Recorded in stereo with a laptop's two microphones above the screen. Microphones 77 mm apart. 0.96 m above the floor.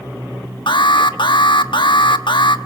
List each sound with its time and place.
0.7 s an alarm: 75° left (ahead or behind), 1.2 m